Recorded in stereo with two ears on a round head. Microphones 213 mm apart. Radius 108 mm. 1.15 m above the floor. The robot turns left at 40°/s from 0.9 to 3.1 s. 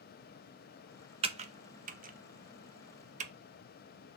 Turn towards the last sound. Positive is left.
turn(degrees=-30)  # may be behind; listen again after turning